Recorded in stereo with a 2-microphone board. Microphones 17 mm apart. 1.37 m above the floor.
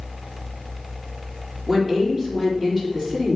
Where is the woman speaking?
5° left (ahead or behind), 3 m.